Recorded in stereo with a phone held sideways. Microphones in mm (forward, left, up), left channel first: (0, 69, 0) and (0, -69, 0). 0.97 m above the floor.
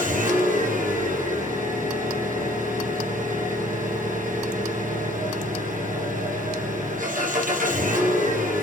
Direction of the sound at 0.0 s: 75° right (ahead or behind).